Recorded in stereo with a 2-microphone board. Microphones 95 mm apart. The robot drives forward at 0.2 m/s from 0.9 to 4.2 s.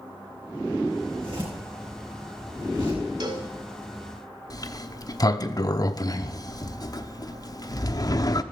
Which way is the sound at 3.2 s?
55° right (ahead or behind).